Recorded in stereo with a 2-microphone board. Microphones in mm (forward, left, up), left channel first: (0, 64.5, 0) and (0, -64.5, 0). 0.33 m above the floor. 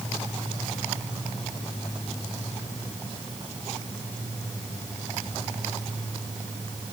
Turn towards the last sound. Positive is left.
No sound to turn to.